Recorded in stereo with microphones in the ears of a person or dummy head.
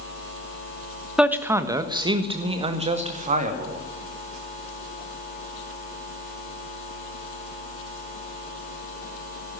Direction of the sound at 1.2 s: 10° right (ahead or behind).